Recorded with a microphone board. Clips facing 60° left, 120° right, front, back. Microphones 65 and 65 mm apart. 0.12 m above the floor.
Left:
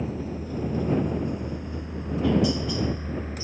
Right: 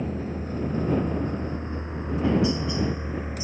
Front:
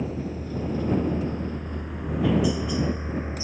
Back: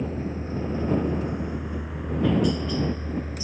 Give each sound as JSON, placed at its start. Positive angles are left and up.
{"t": 0.0, "sound": "a helicopter", "azimuth_deg": -145}